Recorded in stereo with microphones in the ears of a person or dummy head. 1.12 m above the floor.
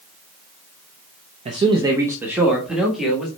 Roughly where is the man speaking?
Right.